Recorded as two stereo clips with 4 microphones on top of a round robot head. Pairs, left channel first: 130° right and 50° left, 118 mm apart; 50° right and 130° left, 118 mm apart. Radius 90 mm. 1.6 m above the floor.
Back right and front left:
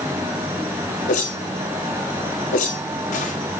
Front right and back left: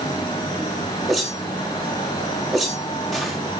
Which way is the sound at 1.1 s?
140° right.